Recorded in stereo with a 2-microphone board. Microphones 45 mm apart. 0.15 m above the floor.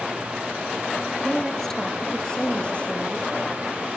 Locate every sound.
1.2 s a woman speaking: centre (ahead or behind), 2.5 m; by 3.3 s 25° left (ahead or behind), 4.5 m